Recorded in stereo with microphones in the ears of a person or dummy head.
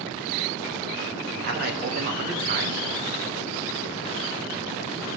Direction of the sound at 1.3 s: 50° right (ahead or behind).